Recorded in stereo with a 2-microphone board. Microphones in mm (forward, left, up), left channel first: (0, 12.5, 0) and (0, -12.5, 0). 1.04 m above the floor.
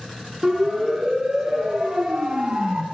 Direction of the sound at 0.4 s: 15° right (ahead or behind).